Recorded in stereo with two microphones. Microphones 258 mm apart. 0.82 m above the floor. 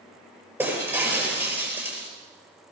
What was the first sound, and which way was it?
Breaking glass, 10° right (ahead or behind).